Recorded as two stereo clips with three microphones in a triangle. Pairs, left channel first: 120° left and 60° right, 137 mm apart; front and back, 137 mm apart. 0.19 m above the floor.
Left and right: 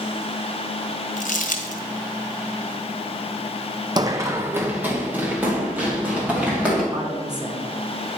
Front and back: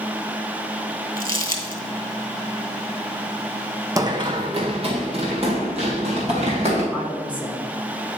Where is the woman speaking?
105° right, 2.0 m.